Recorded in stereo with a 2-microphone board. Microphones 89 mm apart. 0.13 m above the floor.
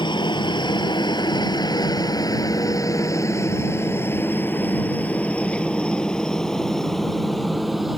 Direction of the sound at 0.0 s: 60° left (ahead or behind).